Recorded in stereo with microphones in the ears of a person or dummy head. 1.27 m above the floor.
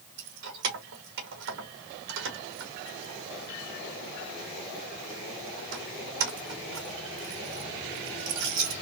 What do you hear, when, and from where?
0.2 s keys jangling: 60° right (ahead or behind), 1.5 m